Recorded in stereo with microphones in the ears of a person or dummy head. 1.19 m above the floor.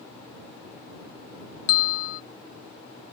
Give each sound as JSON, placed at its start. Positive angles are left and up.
{"t": 1.7, "sound": "a bell", "side_deg": 85}